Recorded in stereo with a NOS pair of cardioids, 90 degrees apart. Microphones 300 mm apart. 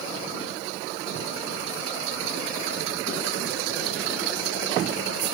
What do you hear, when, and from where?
Only background noise.